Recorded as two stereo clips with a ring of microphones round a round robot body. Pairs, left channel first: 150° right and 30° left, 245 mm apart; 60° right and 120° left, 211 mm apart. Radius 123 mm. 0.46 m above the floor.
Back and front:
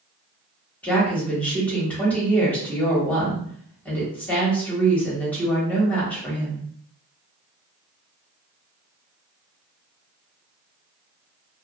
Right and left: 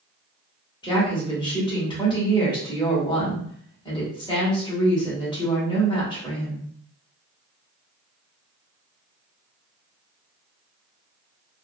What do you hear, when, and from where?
0.8 s a woman speaking: 75° right, 1.2 m